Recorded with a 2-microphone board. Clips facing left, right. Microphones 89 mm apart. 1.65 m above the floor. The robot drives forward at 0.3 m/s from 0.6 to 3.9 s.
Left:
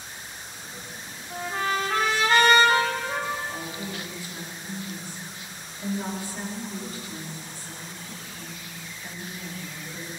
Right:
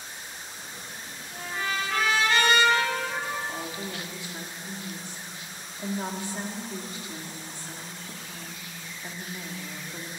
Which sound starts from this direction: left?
A trumpet, at 1.3 s.